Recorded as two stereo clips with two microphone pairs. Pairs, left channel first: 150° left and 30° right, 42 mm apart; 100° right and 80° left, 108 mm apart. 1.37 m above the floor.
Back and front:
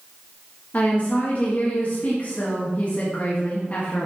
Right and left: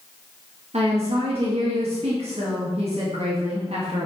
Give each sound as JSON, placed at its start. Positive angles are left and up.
{"t": 0.7, "sound": "a woman speaking", "azimuth_deg": 100, "distance_m": 1.4}